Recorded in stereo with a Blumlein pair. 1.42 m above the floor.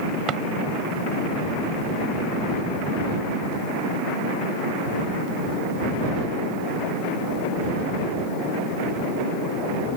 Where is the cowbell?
No cowbell in this recording.